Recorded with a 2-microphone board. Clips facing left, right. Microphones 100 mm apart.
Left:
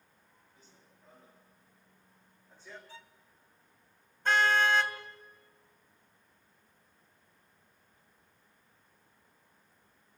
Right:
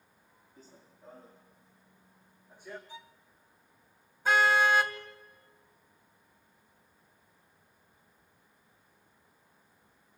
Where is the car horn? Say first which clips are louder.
Right 2 dB; 5° right (ahead or behind), 2.5 m.